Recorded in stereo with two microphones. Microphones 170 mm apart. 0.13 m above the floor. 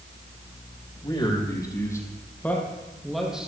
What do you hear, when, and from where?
1.0 s a man speaking: 30° left (ahead or behind), 5 m; by 3.5 s 5° right (ahead or behind), 4.5 m